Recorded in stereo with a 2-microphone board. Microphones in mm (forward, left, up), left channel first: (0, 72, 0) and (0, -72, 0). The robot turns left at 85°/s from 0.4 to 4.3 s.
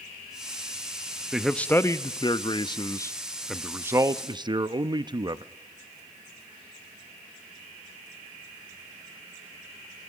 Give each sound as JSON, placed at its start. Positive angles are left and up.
{"t": 1.3, "sound": "a man speaking", "azimuth_deg": -175, "distance_m": 0.5}